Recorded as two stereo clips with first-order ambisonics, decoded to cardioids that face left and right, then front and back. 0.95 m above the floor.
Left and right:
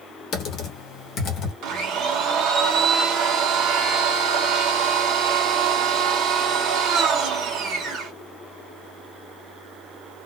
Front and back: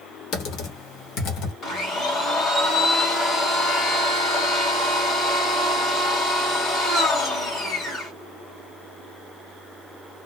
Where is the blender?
55° right, 1.5 m.